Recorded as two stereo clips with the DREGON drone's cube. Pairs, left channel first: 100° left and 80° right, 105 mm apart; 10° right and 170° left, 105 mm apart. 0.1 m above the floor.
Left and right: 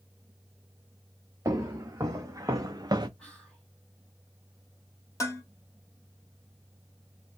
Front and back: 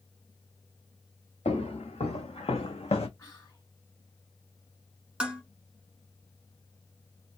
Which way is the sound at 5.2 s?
100° left.